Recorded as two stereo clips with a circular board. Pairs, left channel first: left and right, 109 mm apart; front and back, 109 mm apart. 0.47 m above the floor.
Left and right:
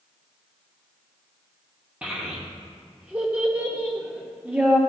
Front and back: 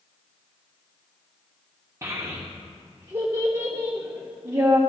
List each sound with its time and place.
2.0 s a child speaking: 155° right, 0.7 m